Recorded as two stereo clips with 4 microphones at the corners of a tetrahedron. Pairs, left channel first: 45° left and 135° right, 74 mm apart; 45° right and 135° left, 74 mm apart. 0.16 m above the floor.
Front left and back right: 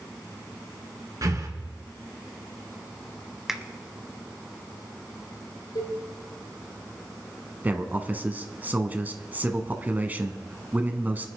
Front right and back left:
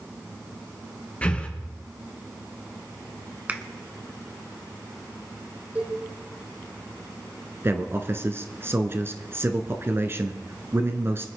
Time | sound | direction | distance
1.2 | breathing | 115° right | 3 m
3.5 | a finger snap | 150° left | 1.0 m
5.8 | a cowbell | 70° left | 4.5 m
7.6 | a man speaking | 170° left | 1.4 m